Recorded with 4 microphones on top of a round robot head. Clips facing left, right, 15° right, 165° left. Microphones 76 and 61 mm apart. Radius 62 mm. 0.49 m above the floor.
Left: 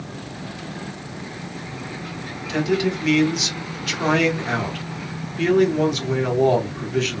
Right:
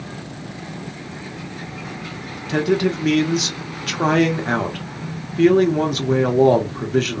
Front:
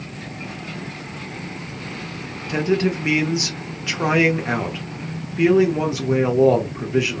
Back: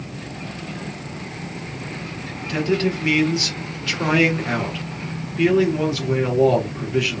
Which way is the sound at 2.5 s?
75° right.